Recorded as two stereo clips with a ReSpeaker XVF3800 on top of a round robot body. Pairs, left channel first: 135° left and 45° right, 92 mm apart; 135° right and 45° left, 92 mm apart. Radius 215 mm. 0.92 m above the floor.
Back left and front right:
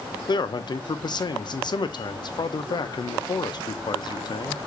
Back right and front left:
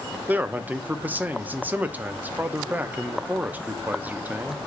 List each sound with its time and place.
0.3 s a man speaking: 115° left, 0.5 m